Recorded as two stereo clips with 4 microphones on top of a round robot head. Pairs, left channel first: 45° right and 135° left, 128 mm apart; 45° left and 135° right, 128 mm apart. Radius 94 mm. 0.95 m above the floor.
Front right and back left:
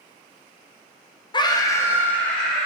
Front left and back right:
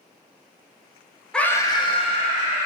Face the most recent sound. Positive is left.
turn(degrees=45)